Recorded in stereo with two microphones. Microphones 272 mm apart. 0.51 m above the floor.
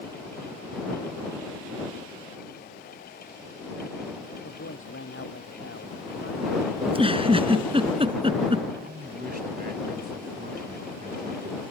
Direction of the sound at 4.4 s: 50° left (ahead or behind).